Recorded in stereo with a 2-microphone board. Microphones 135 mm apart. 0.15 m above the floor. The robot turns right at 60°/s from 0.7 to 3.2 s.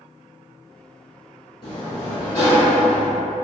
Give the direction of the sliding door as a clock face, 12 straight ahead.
10 o'clock.